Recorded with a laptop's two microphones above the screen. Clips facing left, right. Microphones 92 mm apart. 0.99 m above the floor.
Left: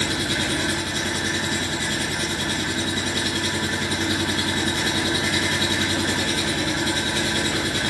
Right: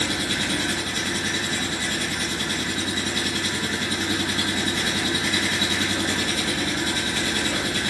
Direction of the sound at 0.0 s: 85° left.